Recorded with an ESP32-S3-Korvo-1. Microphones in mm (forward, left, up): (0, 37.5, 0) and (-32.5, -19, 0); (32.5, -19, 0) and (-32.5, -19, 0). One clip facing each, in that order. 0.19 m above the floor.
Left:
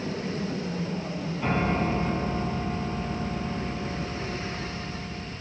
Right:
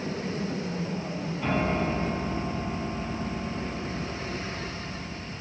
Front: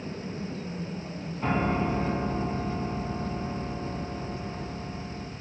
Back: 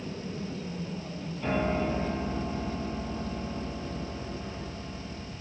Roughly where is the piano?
Ahead.